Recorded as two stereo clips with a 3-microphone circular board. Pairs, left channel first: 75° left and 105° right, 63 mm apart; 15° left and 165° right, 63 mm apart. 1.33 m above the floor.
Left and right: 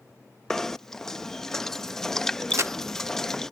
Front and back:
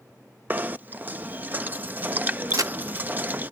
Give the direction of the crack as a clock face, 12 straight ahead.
5 o'clock.